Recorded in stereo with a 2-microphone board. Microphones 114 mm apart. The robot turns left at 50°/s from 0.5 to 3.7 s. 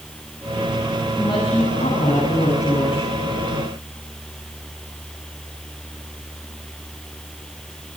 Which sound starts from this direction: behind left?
A woman speaking, at 1.2 s.